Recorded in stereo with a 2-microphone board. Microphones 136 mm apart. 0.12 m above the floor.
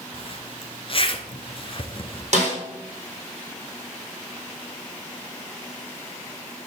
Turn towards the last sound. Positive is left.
turn(degrees=-55)  # may be behind; listen again after turning